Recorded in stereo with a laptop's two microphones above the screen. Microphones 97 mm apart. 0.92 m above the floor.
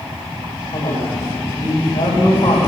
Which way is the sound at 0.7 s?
65° left (ahead or behind).